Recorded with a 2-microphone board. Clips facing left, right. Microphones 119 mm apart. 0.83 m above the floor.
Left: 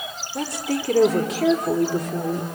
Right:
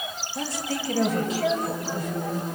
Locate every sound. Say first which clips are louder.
0.3 s a woman speaking: left 5 dB; 60° left (ahead or behind), 2.5 m; by 2.5 s 70° left (ahead or behind), 2 m